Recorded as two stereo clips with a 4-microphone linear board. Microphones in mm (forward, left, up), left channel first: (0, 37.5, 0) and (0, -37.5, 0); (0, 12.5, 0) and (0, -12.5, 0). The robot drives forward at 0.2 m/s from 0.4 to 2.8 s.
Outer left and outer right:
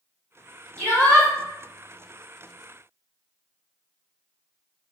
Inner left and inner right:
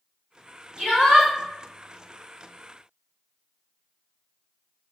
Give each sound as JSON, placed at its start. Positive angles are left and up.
{"t": 0.8, "sound": "a shout", "side_deg": -45, "distance_m": 1.8}